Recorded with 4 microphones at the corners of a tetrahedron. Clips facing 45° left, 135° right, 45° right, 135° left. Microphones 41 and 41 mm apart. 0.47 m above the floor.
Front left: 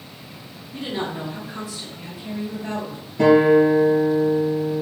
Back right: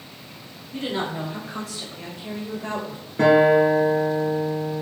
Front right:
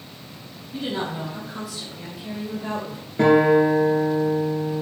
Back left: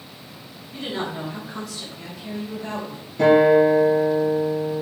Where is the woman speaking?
135° right, 3.5 m; by 3.1 s 110° right, 2 m.